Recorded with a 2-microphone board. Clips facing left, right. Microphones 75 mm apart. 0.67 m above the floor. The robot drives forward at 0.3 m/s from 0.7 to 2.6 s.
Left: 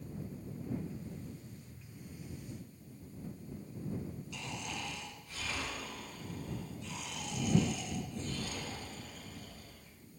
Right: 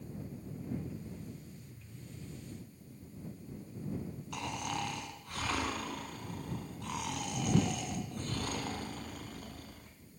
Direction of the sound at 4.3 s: 60° right (ahead or behind).